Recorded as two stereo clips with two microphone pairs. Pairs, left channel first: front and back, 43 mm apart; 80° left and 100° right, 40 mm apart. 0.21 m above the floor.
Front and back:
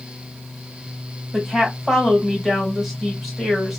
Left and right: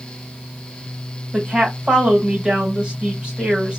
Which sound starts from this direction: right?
A woman speaking, at 1.3 s.